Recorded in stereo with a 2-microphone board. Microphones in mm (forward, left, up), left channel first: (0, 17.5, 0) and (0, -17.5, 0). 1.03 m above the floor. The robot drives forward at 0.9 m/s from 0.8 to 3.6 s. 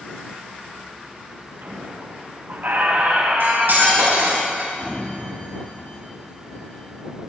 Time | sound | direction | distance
1.6 | a squeak | 55° right (ahead or behind) | 2 m
3.4 | cutlery clinking | 80° right | 4.5 m
4.8 | a sliding door | 50° left (ahead or behind) | 1.4 m